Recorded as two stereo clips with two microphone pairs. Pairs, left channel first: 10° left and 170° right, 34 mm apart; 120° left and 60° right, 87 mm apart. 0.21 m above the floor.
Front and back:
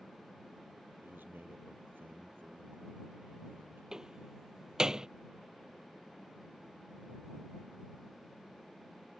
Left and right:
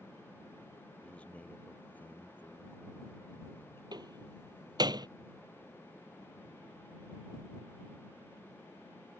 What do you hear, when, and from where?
1.0 s a man speaking: 165° right; by 3.8 s straight behind
3.9 s a door slam: 100° right